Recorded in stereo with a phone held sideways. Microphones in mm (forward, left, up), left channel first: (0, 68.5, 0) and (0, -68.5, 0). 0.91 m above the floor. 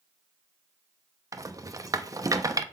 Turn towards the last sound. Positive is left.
turn(degrees=-25)  # may be behind; listen again after turning